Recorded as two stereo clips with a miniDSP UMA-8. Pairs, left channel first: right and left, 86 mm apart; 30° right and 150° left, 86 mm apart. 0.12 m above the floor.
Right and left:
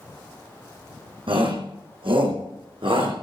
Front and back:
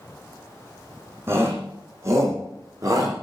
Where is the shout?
90° left, 7 m; by 3.1 s 100° left, 8 m.